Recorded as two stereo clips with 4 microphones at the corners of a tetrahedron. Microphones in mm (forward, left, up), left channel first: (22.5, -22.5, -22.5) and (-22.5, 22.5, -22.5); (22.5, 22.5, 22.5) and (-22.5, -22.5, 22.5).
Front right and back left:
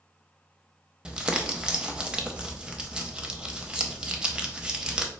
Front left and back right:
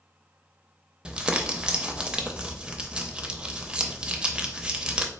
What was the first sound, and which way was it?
Crumpling, 175° left.